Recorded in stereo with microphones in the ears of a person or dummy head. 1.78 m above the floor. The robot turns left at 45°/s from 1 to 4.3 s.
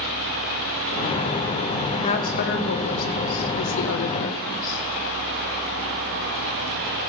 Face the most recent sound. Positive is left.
turn(degrees=45)